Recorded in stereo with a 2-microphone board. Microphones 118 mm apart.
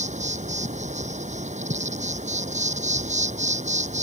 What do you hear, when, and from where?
0.0 s an insect: 85° right